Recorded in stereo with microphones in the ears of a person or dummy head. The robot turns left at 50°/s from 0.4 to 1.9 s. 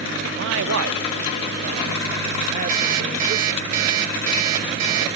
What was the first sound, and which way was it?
A man speaking, 65° right.